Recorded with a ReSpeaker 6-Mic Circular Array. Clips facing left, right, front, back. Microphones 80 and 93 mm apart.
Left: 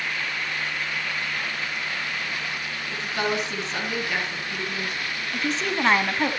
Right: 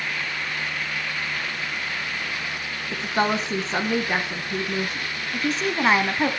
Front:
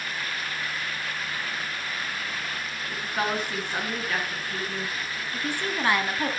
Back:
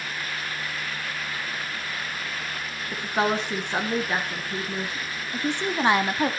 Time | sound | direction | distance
2.9 | a woman speaking | 125° right | 1.7 m
5.3 | a woman speaking | 175° right | 1.1 m